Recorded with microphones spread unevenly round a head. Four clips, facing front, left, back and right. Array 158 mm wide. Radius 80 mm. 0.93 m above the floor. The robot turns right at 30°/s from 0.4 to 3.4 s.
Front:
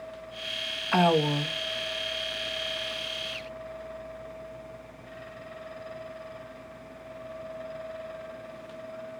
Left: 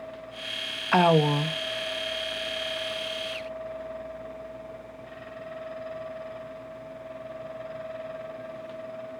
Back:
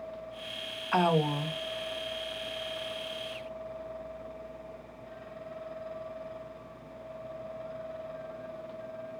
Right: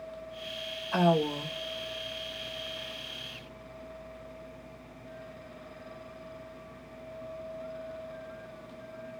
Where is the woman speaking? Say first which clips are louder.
Left 6 dB, front 3 dB; 60° left, 0.9 m; by 1.6 s 80° left, 0.9 m.